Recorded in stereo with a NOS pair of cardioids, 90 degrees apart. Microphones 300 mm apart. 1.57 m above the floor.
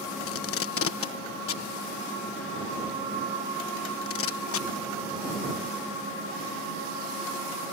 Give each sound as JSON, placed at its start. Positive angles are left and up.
{"t": 0.3, "sound": "tape being pulled", "azimuth_deg": 45}